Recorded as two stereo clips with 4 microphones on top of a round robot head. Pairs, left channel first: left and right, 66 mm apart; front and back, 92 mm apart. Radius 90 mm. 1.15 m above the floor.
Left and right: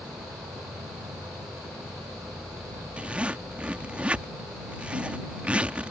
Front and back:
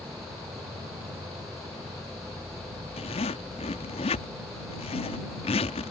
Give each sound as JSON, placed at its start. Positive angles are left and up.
{"t": 0.0, "sound": "an insect", "azimuth_deg": -125}
{"t": 3.0, "sound": "a zipper", "azimuth_deg": -15}